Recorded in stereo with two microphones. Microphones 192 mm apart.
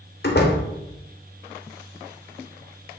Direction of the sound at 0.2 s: 60° left (ahead or behind).